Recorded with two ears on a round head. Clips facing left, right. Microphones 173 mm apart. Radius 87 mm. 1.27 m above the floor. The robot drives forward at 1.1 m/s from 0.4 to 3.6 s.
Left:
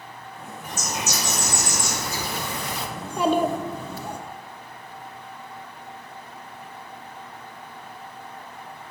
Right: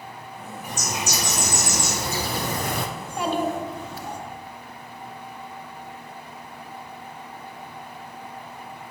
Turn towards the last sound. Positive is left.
turn(degrees=75)  # may be behind; listen again after turning